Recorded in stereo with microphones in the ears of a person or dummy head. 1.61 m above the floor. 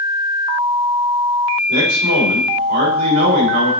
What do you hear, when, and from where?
1.7 s a man speaking: 65° right (ahead or behind), 4 m